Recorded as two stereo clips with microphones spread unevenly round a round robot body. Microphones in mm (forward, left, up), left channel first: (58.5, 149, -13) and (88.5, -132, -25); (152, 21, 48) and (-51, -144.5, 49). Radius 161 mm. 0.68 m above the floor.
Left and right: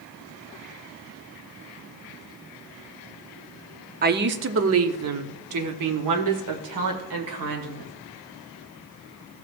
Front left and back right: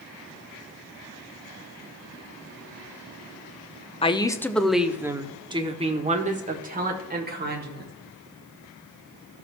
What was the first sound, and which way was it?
A woman speaking, 30° right.